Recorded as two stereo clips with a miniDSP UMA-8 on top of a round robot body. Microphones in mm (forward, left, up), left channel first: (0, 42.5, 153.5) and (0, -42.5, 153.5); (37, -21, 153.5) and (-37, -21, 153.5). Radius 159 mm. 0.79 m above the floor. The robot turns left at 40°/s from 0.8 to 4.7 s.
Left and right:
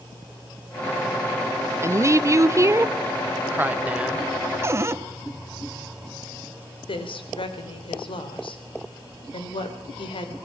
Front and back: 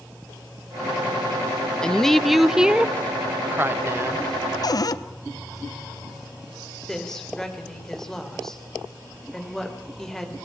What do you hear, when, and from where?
1.8 s a woman speaking: 70° right, 1.1 m; by 4.2 s 170° right, 1.1 m
4.6 s a cupboard door: 30° right, 1.2 m; by 5.0 s 35° right, 1.2 m
6.9 s a woman speaking: 85° left, 3.5 m